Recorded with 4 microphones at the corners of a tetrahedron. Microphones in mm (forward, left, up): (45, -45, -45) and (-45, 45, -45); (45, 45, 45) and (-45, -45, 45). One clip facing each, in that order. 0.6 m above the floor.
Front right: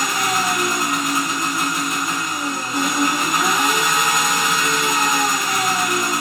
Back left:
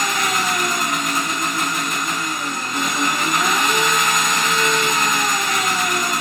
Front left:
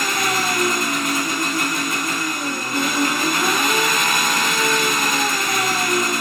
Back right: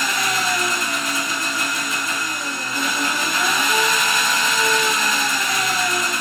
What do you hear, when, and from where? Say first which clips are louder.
0.0 s an engine running: front right 1 dB, front left 1 dB; 35° left, 1.5 m